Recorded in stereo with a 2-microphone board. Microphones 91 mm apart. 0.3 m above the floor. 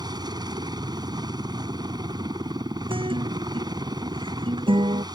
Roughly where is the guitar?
Right.